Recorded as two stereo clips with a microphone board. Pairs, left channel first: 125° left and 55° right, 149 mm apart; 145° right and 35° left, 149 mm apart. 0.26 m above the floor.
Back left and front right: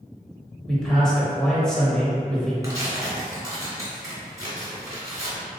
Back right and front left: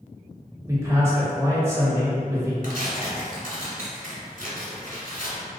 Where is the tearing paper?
10° left, 1.2 m.